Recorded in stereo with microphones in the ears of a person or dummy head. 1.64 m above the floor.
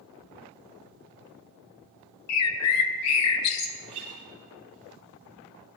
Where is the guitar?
30° right (ahead or behind), 1.4 m.